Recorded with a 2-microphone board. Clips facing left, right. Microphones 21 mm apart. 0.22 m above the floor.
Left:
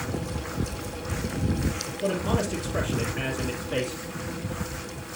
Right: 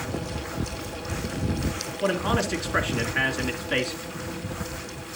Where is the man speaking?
65° right (ahead or behind), 3 m.